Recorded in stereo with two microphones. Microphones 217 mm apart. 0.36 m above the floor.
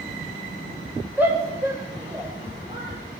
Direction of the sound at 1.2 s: 5° right (ahead or behind).